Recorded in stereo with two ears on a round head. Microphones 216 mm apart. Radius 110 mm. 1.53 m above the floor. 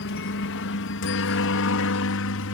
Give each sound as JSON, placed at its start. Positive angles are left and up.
{"t": 0.0, "sound": "a helicopter", "side_deg": 55}